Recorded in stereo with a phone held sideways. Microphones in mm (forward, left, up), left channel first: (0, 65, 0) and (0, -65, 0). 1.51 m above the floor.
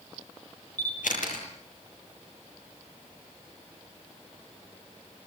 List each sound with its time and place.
0.8 s a camera shutter: 85° left, 9.5 m